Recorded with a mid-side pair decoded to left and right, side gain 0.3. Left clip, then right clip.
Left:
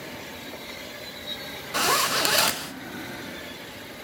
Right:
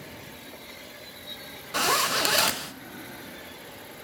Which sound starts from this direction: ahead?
A zipper, at 1.7 s.